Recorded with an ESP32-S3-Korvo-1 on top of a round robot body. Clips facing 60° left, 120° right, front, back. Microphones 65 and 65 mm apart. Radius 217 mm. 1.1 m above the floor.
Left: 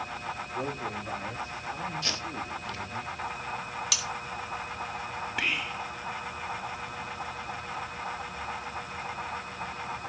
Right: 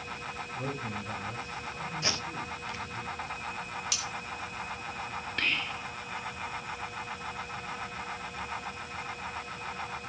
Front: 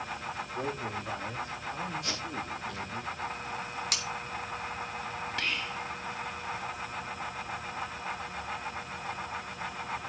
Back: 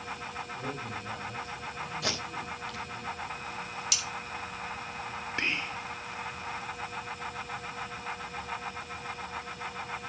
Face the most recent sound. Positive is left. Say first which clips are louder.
# left 1 dB, back 3 dB
turn(degrees=135)